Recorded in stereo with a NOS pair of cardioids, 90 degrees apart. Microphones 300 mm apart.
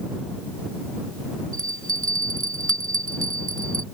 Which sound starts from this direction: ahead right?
A bell, at 1.5 s.